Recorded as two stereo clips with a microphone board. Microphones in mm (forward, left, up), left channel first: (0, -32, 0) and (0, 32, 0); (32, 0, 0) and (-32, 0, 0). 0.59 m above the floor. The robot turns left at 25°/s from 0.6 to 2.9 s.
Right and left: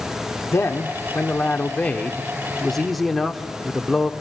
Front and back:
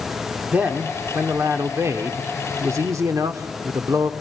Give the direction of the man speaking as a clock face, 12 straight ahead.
4 o'clock.